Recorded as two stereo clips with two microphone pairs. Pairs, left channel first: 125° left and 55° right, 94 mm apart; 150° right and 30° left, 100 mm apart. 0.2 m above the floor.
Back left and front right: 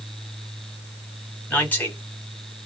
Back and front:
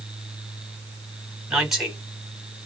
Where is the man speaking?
110° left, 1.3 m.